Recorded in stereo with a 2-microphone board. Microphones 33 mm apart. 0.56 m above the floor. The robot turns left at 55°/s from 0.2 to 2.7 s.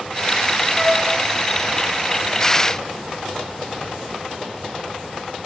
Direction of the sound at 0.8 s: 15° right (ahead or behind).